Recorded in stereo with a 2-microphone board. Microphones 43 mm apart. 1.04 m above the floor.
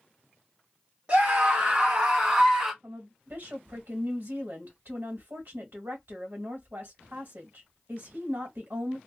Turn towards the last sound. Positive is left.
turn(degrees=-55)  # may be behind; listen again after turning